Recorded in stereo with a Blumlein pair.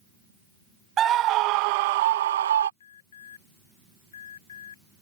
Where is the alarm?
65° left.